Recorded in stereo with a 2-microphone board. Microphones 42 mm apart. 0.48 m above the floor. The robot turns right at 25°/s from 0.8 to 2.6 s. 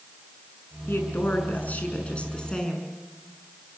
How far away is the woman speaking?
About 6.5 m.